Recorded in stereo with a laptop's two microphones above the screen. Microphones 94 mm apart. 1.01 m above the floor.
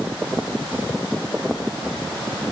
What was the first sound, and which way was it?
Only background noise.